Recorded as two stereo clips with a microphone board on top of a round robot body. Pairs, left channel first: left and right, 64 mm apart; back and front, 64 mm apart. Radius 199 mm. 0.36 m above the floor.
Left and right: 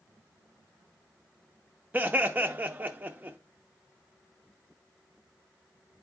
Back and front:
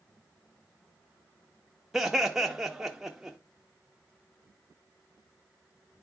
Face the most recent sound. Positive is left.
turn(degrees=-80)